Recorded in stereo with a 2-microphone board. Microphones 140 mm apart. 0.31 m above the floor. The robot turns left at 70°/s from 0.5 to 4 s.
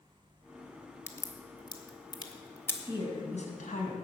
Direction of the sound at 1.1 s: 20° left (ahead or behind).